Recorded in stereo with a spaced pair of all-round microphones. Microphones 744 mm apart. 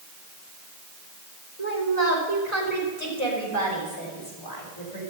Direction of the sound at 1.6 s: 65° left (ahead or behind).